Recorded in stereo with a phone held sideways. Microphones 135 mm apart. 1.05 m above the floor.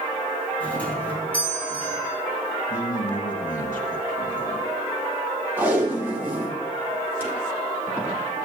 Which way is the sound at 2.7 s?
70° left (ahead or behind).